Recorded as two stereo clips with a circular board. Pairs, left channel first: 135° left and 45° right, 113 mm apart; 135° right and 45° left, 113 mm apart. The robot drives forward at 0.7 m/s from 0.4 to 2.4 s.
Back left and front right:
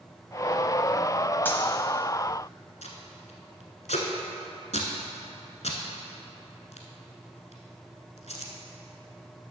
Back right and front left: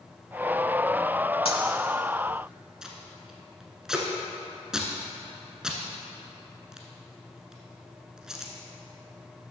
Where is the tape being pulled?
130° left, 1.0 m.